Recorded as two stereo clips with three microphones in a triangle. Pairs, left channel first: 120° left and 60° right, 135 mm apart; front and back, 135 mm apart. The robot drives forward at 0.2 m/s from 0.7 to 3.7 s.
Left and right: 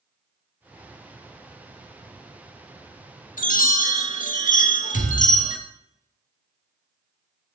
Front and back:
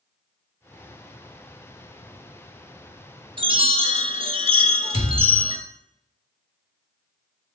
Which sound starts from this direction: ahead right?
A thud, at 4.9 s.